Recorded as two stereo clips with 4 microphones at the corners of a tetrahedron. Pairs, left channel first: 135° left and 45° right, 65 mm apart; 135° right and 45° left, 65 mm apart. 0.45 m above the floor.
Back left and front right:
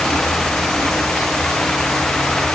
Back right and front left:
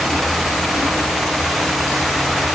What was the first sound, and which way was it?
Only background noise.